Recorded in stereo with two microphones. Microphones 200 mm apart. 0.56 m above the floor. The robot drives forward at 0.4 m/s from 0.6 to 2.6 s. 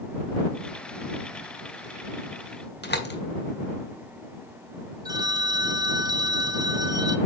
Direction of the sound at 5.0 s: 20° right (ahead or behind).